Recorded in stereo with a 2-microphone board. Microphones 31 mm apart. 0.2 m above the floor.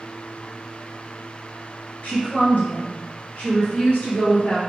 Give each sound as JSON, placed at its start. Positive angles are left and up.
{"t": 2.0, "sound": "a woman speaking", "side_deg": 55, "distance_m": 2.5}